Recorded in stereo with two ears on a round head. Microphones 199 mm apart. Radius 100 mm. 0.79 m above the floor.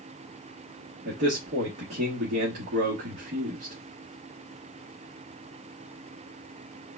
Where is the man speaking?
45° right (ahead or behind), 1.3 m.